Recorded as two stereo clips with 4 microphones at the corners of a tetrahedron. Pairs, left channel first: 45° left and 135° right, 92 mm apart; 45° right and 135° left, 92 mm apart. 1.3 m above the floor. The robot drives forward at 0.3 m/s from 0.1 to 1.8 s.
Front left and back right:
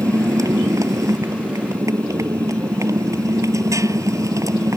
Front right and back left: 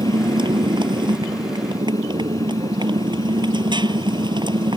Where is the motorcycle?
170° left.